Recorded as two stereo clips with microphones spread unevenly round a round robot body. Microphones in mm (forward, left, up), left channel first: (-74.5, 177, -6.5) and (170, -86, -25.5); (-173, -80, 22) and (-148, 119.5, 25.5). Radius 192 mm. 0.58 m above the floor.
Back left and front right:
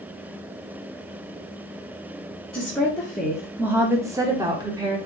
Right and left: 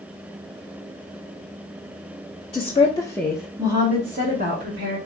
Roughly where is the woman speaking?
Behind right.